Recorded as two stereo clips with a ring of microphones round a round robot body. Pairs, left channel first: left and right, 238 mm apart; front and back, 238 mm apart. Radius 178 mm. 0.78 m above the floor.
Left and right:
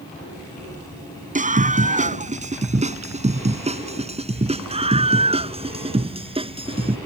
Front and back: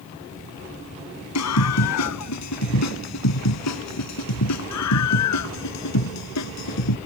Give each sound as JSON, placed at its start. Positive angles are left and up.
{"t": 1.4, "sound": "a scream", "azimuth_deg": -30}